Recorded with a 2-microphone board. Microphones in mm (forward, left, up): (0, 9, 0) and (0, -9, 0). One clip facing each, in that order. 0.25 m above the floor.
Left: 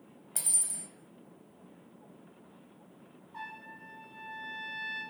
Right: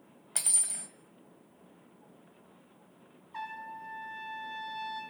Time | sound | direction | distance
0.3 | cutlery clinking | 25° right (ahead or behind) | 0.6 m
3.3 | a trumpet | 35° right (ahead or behind) | 1.4 m